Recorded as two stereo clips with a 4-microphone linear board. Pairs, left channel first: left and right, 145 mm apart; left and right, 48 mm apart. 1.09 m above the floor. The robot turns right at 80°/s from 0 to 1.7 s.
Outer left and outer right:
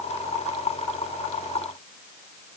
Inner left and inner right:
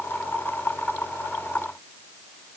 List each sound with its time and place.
Only background noise.